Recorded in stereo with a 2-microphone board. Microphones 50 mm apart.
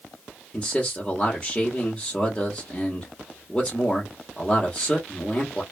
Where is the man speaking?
20° left (ahead or behind), 0.9 m.